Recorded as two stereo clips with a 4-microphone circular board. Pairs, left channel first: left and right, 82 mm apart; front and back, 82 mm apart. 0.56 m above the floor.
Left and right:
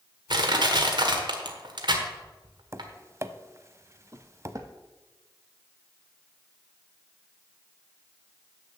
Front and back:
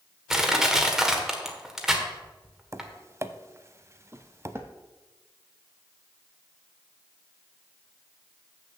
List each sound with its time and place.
0.3 s crushing: 95° right, 1.4 m
2.7 s tapping: 135° right, 0.5 m
4.1 s footsteps: 125° right, 0.9 m